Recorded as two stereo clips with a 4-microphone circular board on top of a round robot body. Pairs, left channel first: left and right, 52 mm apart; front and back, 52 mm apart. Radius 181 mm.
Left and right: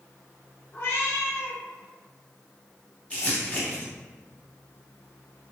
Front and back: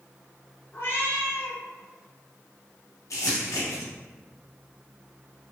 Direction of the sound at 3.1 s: 20° left.